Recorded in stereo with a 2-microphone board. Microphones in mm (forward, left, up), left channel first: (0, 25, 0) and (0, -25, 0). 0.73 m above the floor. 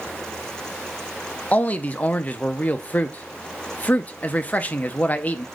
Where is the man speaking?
30° left (ahead or behind), 0.6 m.